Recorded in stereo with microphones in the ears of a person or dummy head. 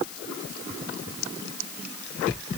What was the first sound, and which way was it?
Only background noise.